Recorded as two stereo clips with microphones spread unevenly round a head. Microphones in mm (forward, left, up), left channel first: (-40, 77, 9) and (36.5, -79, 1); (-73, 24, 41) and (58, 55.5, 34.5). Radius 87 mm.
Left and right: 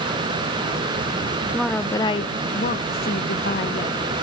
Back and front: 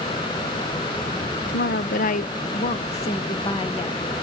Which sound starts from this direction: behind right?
A woman speaking, at 1.5 s.